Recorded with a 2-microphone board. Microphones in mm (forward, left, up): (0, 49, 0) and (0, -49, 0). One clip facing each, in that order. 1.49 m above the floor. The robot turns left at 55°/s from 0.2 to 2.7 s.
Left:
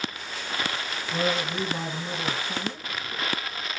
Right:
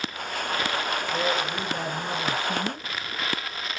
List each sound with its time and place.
1.1 s a man speaking: 45° left, 2 m; by 2.9 s 40° right, 2 m